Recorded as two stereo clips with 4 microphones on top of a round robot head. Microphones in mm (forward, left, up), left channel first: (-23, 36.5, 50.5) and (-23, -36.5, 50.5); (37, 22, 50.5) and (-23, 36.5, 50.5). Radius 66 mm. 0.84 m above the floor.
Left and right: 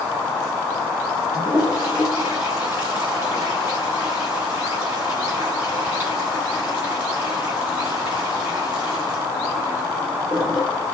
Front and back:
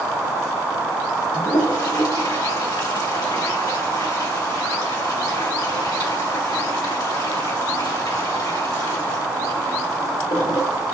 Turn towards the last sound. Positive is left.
turn(degrees=-15)